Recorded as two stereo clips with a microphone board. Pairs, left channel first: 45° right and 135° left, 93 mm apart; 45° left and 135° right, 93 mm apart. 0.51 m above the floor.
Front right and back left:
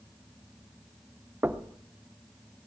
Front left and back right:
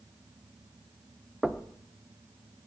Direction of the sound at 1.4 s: 125° left.